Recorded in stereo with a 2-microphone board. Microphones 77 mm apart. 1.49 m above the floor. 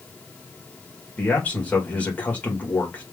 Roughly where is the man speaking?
Left.